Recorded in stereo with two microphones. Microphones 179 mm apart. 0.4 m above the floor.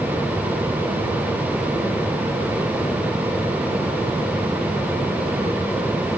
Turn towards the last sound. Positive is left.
No sound to turn to.